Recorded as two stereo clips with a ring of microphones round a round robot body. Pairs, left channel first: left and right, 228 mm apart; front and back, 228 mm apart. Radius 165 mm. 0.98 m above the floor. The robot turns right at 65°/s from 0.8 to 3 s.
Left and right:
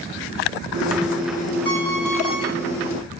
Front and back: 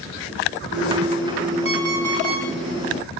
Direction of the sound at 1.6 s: 150° left.